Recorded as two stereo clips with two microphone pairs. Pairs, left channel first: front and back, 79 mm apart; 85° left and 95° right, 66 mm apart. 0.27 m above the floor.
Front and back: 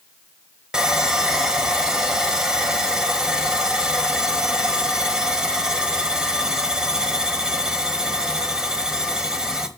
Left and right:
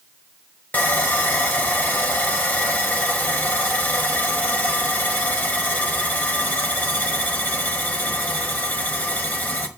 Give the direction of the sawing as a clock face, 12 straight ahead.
8 o'clock.